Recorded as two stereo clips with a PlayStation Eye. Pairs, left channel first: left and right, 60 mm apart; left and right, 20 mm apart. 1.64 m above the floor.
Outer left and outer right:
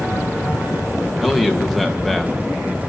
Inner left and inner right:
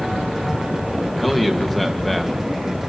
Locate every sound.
1.2 s a man speaking: 5° right (ahead or behind), 2.5 m